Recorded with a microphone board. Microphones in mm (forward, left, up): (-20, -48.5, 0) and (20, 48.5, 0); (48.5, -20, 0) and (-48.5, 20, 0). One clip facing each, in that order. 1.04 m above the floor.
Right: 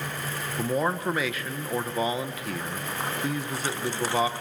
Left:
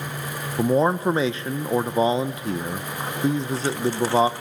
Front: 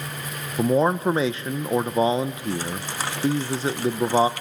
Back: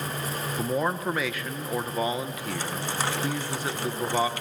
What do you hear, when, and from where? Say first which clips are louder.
0.6 s a man speaking: left 7 dB, front 8 dB; 20° left, 0.6 m